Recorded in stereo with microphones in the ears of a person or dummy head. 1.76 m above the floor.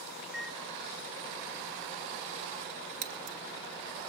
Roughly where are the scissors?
Right.